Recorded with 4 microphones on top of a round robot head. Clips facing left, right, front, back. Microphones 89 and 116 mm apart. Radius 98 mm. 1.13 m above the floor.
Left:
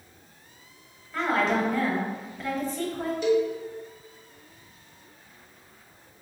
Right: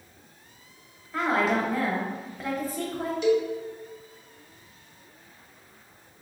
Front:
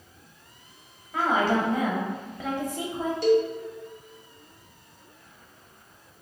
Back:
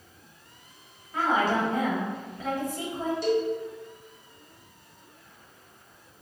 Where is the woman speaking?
10° right, 1.1 m.